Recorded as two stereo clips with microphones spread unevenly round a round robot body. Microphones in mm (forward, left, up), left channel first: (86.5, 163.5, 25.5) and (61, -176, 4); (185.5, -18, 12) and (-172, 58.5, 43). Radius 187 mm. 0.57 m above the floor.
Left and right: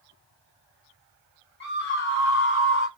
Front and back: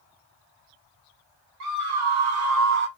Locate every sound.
1.6 s a scream: 145° left, 1.9 m; by 2.9 s 120° left, 1.5 m